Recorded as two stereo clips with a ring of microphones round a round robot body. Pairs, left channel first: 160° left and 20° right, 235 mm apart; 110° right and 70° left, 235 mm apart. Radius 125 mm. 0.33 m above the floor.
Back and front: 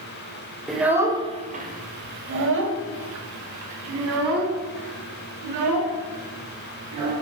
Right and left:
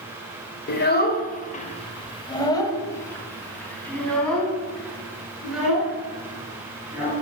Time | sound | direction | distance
0.7 | a child speaking | 115° right | 1.0 m